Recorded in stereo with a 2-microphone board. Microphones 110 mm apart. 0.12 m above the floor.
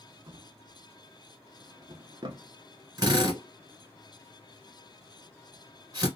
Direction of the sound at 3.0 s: 35° right (ahead or behind).